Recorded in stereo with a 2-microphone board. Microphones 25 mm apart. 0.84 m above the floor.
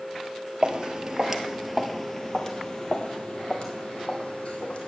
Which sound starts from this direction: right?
Footsteps, at 0.6 s.